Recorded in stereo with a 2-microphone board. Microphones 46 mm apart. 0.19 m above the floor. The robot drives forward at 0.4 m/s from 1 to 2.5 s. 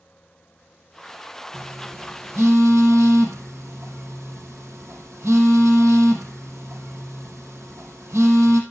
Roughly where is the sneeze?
No sneeze in this recording.